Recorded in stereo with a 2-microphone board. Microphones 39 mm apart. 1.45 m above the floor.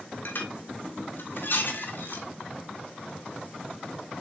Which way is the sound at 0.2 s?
65° left (ahead or behind).